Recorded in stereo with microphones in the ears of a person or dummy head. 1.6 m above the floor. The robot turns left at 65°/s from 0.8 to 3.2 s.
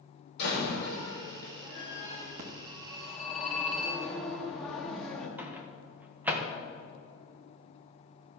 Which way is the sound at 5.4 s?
5° right (ahead or behind).